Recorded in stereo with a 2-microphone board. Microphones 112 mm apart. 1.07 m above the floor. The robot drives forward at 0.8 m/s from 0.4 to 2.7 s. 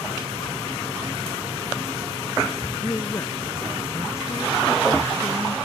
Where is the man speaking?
25° left (ahead or behind).